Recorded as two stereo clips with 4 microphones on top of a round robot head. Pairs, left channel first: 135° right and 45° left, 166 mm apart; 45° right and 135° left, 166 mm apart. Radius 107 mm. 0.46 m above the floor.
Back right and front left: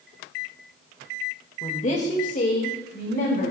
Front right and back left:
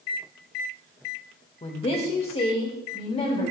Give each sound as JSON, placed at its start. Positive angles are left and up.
{"t": 1.6, "sound": "a woman speaking", "azimuth_deg": -90, "distance_m": 1.9}